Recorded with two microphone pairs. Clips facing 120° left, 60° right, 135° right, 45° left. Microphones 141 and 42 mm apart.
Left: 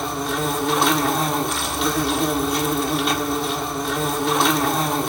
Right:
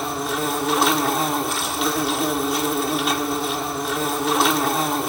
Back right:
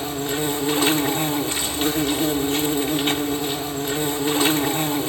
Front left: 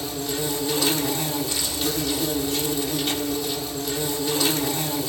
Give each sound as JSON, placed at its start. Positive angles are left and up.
{"t": 0.0, "sound": "an insect", "azimuth_deg": -150, "distance_m": 1.3}